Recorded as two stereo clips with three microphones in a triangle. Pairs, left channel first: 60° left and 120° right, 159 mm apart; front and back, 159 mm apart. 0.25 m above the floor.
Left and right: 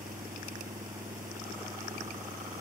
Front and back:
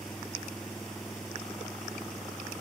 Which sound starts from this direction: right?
An engine running, at 0.0 s.